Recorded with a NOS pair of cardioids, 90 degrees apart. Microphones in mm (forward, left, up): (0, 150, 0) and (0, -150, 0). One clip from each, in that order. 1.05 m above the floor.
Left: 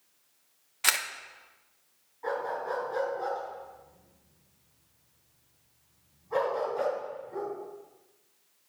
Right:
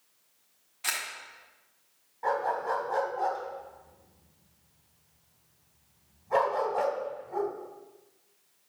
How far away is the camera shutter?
About 0.9 m.